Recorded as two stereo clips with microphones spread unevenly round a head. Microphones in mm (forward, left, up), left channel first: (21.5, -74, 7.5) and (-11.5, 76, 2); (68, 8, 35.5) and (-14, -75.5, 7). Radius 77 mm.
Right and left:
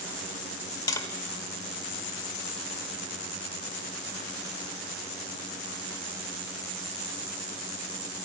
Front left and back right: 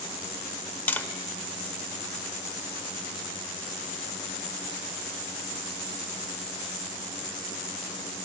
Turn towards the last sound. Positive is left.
turn(degrees=-15)